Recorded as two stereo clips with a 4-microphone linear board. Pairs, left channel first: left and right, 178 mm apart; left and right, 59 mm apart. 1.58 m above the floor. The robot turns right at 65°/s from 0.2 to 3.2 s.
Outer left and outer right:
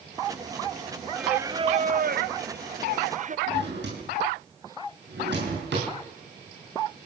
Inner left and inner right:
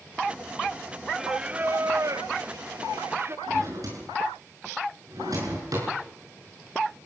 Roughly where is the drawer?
Right.